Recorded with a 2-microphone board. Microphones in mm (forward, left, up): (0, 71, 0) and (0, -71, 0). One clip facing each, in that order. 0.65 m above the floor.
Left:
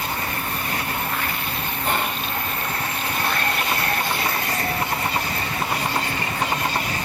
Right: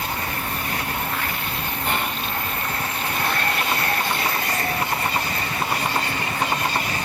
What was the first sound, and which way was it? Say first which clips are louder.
Whispering: left 2 dB; 40° left (ahead or behind).